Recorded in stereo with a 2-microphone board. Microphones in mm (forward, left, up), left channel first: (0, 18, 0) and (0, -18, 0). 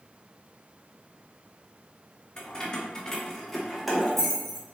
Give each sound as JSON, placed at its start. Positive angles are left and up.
{"t": 2.4, "sound": "keys jangling", "side_deg": 25, "distance_m": 0.7}